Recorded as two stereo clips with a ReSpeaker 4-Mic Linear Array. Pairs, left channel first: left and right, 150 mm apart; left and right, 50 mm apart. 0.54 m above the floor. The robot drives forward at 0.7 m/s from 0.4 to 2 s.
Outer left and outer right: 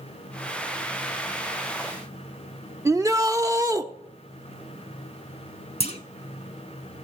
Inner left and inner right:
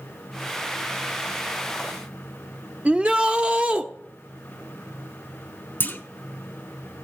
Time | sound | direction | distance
2.9 | a shout | 20° right (ahead or behind) | 0.6 m
5.8 | a clunk | 40° left (ahead or behind) | 1.0 m